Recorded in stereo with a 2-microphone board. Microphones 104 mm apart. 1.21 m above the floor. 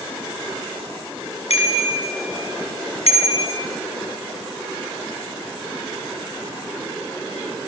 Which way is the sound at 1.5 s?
85° left.